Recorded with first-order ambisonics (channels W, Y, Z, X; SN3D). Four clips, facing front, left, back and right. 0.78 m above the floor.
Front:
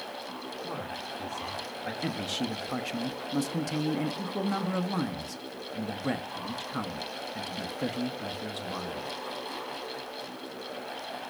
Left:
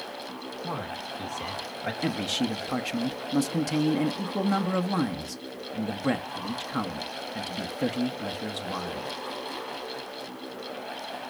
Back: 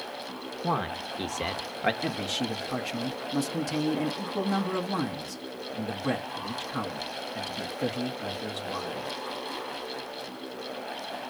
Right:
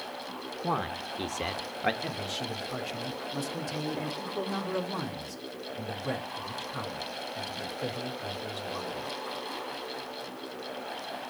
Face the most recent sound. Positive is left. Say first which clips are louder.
# left 6 dB, back 2 dB
turn(degrees=85)